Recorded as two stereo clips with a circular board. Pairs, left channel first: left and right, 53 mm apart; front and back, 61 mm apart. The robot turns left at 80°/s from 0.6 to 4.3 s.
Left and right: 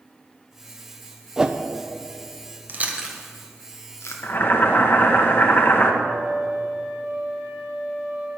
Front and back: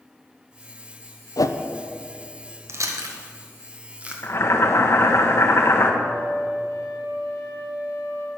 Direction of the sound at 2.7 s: 140° right.